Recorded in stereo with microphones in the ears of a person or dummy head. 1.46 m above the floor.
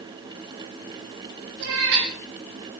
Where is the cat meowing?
60° right (ahead or behind), 3.5 m.